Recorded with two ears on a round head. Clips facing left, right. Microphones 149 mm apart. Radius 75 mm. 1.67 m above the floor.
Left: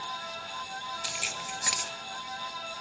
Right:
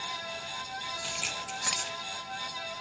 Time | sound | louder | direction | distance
1.0 | keys jangling | even | 5° left (ahead or behind) | 0.8 m